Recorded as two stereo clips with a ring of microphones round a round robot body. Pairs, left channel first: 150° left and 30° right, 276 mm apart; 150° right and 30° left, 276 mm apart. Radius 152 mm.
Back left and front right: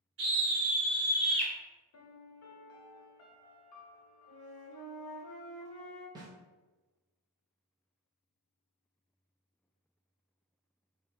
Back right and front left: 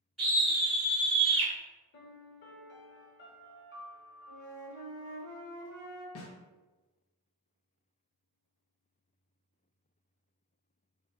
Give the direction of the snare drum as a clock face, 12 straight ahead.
4 o'clock.